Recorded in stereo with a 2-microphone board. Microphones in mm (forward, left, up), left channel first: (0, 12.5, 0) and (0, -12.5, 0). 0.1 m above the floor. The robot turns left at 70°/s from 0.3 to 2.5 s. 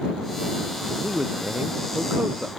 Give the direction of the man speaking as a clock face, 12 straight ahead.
1 o'clock.